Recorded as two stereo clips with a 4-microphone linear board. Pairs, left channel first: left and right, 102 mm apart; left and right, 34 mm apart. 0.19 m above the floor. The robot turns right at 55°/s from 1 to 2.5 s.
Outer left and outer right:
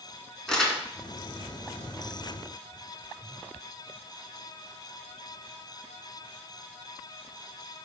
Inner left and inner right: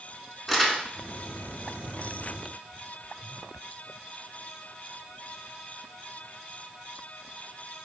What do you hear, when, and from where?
0.5 s crumpling: 5° left (ahead or behind), 0.7 m